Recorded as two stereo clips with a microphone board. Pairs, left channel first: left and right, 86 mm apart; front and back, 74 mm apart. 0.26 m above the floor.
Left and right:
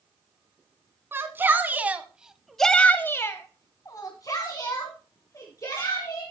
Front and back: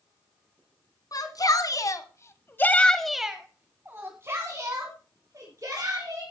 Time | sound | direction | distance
1.1 | a shout | 30° right | 2.5 m